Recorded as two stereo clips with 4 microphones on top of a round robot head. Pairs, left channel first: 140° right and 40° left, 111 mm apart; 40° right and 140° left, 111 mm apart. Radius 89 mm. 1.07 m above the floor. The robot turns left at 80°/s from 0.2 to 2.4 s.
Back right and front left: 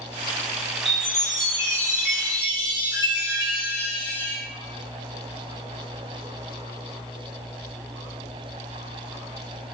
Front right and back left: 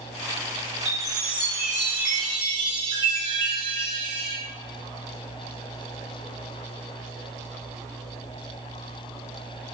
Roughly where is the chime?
Ahead right.